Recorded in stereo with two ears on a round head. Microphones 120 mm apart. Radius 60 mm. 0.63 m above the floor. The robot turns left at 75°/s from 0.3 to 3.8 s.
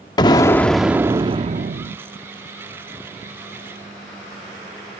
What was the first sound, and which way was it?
An explosion, 35° left.